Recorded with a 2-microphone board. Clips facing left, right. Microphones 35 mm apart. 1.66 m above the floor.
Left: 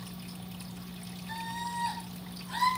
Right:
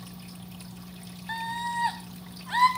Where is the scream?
45° right (ahead or behind), 2.5 m; by 2.7 s 50° right (ahead or behind), 3.5 m.